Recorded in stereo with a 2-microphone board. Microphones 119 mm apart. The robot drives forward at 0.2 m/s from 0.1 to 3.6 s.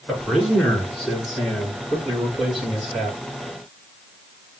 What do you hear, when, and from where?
0.1 s a man speaking: centre (ahead or behind), 5 m